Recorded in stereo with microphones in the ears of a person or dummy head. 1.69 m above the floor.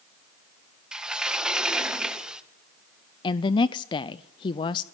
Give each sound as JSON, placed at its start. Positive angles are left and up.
{"t": 0.9, "sound": "a sliding door", "side_deg": -5, "distance_m": 1.7}
{"t": 3.2, "sound": "a woman speaking", "side_deg": 25, "distance_m": 0.6}